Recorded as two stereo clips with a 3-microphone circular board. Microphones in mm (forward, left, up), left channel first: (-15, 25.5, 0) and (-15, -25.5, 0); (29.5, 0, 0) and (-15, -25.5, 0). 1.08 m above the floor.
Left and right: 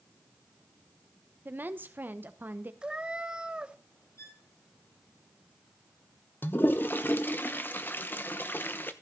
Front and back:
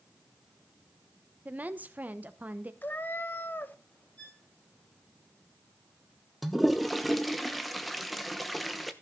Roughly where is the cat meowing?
Ahead right.